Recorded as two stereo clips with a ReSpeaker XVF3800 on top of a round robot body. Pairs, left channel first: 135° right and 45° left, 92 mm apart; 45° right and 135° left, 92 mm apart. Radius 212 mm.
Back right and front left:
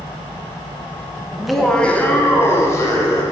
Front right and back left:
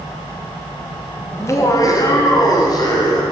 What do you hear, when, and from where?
1.3 s laughter: 30° right, 1.5 m; by 3.2 s 85° right, 3 m